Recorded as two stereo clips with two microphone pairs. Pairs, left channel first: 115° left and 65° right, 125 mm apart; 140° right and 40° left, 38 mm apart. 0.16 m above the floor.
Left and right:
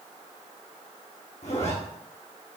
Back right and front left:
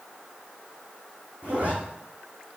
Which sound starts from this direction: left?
A zipper, at 1.4 s.